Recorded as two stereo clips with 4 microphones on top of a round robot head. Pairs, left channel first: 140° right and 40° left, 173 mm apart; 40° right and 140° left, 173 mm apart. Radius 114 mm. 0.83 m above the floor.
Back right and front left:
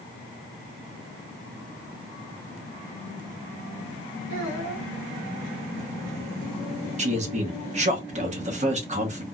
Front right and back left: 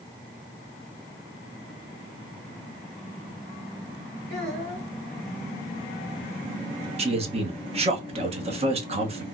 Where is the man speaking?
85° left, 1.1 m.